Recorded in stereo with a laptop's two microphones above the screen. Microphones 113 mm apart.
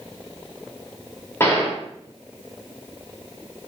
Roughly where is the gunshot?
Left.